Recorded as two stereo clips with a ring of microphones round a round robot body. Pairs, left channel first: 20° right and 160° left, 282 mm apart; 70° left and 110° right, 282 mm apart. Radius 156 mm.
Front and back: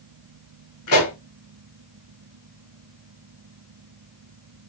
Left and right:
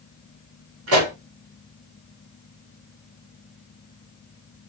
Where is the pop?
65° right, 2 m.